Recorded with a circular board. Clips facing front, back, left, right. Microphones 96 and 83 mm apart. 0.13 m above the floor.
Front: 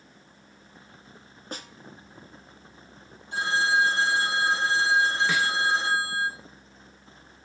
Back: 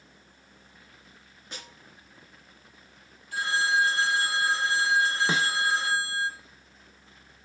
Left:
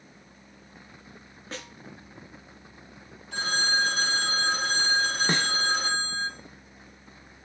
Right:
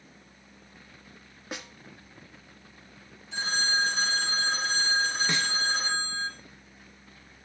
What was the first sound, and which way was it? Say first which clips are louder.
A snare drum: front 6 dB, even; 20° right.